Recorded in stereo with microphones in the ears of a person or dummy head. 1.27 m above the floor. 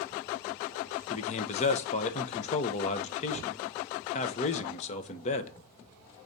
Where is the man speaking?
40° left (ahead or behind), 0.9 m.